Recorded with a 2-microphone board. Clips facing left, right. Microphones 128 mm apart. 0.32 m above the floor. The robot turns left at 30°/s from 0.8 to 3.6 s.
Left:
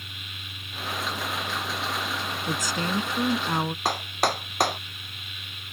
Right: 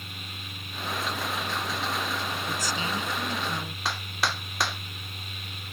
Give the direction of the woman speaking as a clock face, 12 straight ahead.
8 o'clock.